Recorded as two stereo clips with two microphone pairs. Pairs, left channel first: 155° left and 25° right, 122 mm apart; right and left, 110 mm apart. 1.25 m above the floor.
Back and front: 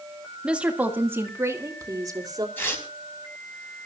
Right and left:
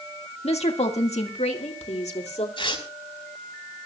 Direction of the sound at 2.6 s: 130° right.